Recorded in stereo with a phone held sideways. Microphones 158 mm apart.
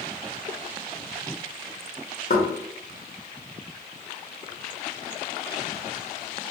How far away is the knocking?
About 1.3 m.